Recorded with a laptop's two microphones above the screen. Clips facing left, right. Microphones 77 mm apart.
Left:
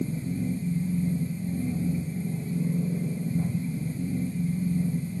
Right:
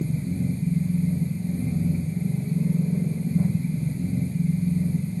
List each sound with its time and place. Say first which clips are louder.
0.0 s a machine running: right 2 dB; 15° left (ahead or behind), 7 m